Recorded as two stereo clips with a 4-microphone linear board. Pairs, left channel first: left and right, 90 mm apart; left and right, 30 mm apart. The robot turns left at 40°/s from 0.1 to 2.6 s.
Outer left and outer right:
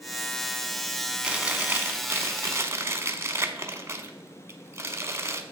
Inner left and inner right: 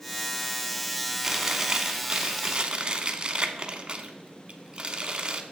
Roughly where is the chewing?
Ahead right.